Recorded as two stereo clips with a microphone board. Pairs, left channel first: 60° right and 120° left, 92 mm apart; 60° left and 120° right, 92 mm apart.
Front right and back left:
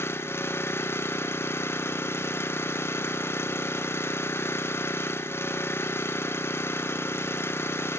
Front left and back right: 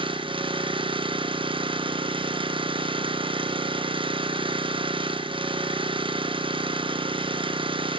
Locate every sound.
0.0 s an engine running: 120° right, 0.8 m